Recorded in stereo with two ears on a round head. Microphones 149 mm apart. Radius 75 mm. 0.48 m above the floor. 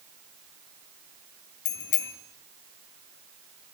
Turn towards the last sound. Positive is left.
turn(degrees=70)  # may be behind; listen again after turning